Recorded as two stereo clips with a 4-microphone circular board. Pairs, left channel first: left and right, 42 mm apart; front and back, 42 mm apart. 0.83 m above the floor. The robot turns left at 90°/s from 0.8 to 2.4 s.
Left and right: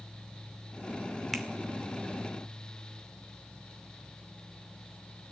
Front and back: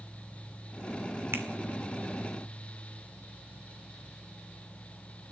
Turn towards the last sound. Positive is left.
turn(degrees=80)